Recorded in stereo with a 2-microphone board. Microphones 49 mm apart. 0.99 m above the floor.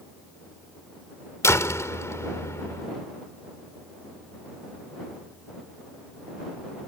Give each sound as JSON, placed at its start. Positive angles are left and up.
{"t": 1.4, "sound": "a door slam", "side_deg": 85}